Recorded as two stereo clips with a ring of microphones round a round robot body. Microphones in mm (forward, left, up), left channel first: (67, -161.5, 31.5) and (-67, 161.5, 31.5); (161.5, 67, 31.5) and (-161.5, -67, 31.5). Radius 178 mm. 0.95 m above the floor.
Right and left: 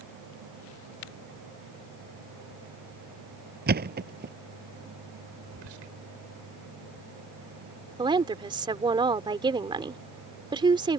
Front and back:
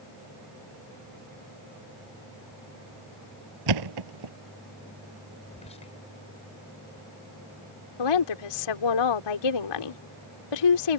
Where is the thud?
175° left.